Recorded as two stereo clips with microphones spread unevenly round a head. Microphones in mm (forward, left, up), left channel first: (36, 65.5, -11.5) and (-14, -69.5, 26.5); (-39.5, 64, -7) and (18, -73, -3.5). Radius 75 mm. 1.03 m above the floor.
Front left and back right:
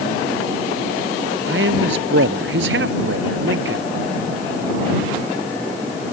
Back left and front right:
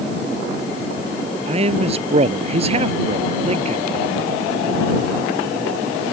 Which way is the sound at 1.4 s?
115° right.